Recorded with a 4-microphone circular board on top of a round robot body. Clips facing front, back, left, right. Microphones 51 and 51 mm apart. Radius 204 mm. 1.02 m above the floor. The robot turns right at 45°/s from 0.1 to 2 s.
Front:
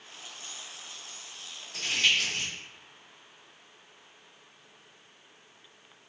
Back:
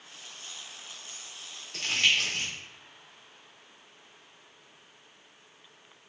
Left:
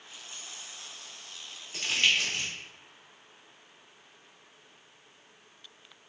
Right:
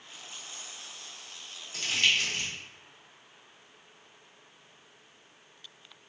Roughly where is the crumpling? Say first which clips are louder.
Back 1 dB, even; behind left.